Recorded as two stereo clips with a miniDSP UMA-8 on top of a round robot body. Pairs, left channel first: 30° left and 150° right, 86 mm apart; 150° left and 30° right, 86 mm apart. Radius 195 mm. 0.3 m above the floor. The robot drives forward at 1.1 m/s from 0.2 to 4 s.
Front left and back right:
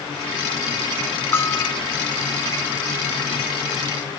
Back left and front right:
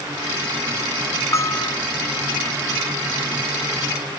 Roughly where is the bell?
Left.